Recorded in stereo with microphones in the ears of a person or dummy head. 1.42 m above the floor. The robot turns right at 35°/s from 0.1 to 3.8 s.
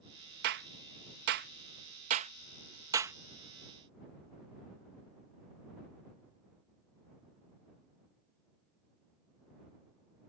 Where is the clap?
55° right (ahead or behind); by 3.2 s 10° right (ahead or behind).